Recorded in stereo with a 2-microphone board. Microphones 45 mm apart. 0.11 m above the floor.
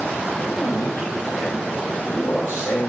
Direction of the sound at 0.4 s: 55° left (ahead or behind).